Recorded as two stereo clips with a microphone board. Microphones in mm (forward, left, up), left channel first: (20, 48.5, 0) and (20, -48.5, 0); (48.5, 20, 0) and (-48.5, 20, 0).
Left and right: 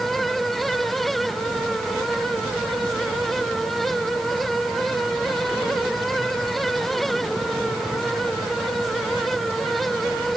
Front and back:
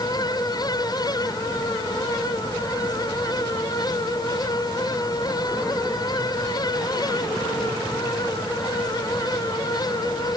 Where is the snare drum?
I don't hear a snare drum.